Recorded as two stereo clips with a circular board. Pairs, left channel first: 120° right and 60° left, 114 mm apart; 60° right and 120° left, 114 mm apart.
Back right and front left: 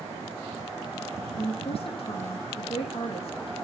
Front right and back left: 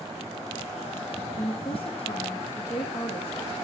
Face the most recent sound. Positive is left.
turn(degrees=-90)